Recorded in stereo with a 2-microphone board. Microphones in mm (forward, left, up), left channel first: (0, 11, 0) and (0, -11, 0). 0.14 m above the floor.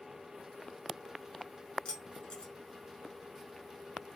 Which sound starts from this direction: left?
Keys jangling, at 1.9 s.